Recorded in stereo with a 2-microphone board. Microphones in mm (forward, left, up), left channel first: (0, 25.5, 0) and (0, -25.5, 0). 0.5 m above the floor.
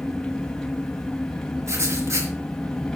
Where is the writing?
75° right (ahead or behind), 3.5 m.